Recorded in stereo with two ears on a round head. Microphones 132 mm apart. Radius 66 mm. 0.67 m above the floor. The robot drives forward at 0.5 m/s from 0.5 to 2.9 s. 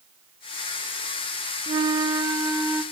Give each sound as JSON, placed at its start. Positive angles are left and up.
{"t": 1.7, "sound": "a flute", "side_deg": -30, "distance_m": 0.5}